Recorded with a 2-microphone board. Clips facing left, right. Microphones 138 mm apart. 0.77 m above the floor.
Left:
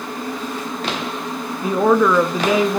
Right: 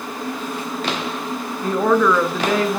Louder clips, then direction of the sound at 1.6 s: Left 2 dB; 10° left (ahead or behind).